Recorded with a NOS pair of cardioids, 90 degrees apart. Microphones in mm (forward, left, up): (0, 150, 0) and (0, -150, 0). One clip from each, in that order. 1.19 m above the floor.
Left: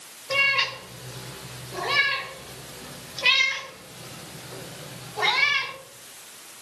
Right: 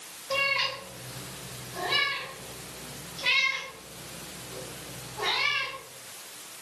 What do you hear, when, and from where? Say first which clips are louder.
0.3 s a cat meowing: left 5 dB; 40° left, 1.9 m; by 5.7 s 80° left, 4 m